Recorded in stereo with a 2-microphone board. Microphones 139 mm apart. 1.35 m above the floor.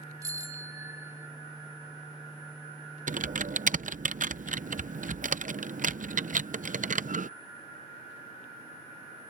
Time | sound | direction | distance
0.2 | a bicycle bell | 25° right (ahead or behind) | ?
3.1 | typing on a keyboard | 75° right (ahead or behind) | ?